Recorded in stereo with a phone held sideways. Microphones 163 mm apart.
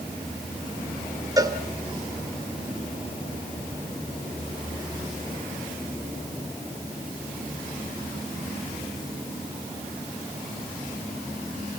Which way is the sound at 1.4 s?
25° right (ahead or behind).